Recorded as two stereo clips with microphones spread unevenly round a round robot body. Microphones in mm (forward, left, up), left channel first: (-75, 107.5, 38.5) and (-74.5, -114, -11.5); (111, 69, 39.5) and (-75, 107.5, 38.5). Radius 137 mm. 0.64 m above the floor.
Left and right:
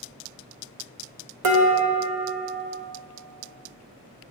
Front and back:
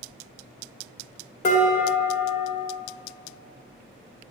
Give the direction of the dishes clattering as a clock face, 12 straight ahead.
3 o'clock.